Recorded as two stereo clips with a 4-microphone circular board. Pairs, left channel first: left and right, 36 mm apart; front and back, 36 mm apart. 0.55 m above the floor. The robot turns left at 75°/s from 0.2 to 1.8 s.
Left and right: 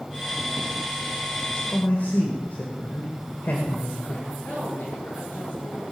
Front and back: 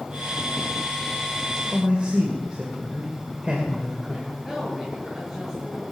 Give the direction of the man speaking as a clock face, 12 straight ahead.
8 o'clock.